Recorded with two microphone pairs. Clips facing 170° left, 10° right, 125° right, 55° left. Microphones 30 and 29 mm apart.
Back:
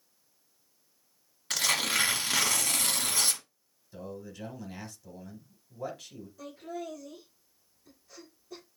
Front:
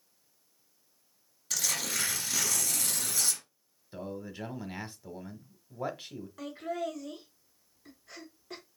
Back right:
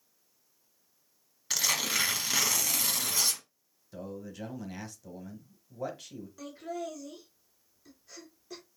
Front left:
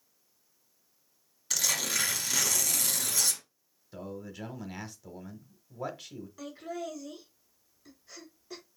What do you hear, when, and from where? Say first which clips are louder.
1.5 s tearing paper: back 5 dB, back right 1 dB; 175° left, 1.0 m
3.9 s a man speaking: front 2 dB, even; 15° right, 1.0 m
6.4 s laughter: front 4 dB, even; 20° right, 3.5 m